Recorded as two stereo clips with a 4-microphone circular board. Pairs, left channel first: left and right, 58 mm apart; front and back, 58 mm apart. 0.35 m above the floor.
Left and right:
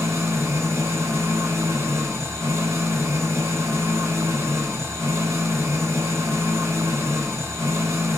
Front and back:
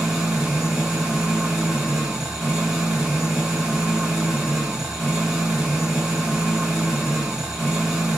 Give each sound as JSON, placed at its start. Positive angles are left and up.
{"t": 0.0, "sound": "an engine running", "azimuth_deg": -100, "distance_m": 2.0}